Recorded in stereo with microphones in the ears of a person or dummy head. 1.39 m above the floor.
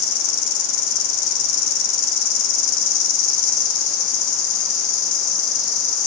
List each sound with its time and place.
0.0 s an insect: 75° left (ahead or behind), 1.1 m